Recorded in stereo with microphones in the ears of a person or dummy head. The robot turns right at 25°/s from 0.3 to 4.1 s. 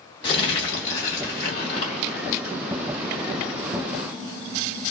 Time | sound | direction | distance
0.2 | crumpling | 60° left | 1.6 m